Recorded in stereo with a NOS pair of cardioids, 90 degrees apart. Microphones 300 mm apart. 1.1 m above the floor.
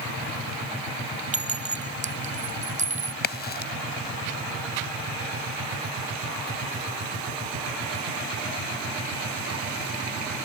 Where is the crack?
35° left.